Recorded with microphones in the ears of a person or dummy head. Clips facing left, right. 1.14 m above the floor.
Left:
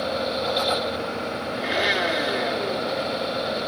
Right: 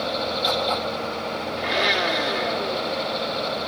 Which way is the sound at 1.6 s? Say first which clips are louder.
Even; 10° left (ahead or behind).